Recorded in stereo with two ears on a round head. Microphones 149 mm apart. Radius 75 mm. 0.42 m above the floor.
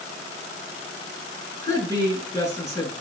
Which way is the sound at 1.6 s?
20° left (ahead or behind).